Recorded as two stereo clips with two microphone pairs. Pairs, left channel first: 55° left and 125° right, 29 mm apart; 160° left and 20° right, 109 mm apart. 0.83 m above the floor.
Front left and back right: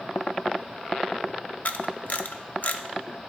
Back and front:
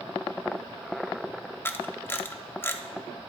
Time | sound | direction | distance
1.6 | a camera shutter | 90° left | 0.5 m